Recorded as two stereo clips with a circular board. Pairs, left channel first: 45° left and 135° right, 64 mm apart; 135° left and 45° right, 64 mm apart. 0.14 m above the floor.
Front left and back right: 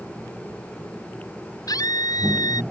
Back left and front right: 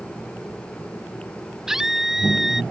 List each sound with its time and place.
1.7 s a scream: 40° left